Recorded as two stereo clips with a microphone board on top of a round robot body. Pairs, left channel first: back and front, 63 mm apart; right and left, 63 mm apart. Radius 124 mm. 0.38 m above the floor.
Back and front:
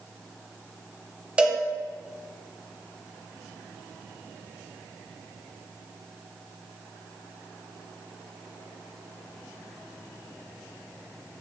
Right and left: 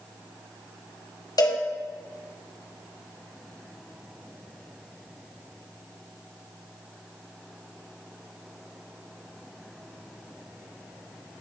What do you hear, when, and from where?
1.4 s a cowbell: 75° right, 1.6 m